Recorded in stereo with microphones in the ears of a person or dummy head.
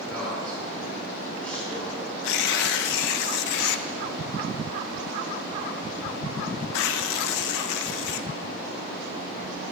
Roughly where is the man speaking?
Centre.